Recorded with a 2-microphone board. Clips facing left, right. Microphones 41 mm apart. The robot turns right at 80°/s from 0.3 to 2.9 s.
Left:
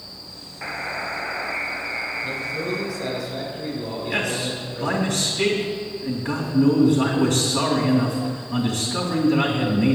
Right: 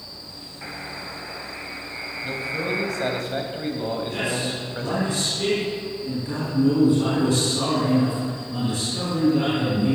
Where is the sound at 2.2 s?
Straight behind, 2.5 m; by 5.0 s 125° right, 2.5 m.